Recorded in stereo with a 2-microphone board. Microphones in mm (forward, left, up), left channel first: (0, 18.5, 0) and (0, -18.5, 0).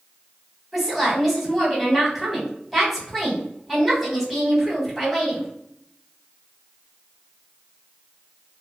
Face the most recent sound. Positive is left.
turn(degrees=0)  # may be behind; listen again after turning